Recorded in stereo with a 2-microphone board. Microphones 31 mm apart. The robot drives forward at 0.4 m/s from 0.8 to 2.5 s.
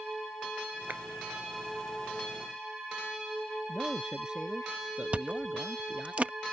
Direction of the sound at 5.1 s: 40° right (ahead or behind).